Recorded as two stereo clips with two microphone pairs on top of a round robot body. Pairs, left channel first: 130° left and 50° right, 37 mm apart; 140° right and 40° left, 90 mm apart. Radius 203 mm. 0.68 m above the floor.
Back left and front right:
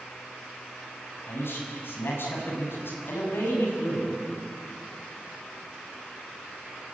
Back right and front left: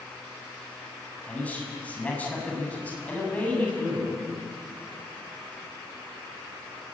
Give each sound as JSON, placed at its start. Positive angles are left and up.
{"t": 1.3, "sound": "a man speaking", "azimuth_deg": 145, "distance_m": 7.0}